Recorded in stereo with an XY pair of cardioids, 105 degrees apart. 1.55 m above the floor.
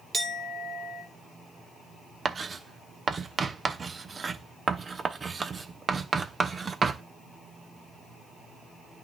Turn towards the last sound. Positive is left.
turn(degrees=-35)